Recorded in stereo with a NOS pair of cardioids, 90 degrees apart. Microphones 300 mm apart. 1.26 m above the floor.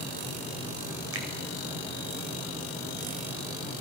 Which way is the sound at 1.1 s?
50° right.